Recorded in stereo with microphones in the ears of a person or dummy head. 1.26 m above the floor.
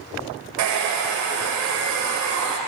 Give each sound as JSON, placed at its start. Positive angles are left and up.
{"t": 0.6, "sound": "a hair dryer", "side_deg": -65, "distance_m": 0.6}